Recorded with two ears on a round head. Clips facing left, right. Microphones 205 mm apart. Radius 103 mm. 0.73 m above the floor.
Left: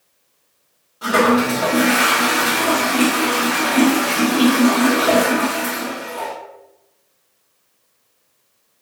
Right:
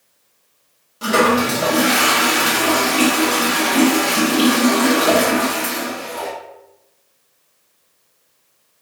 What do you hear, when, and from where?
1.0 s a toilet flushing: 35° right (ahead or behind), 1.5 m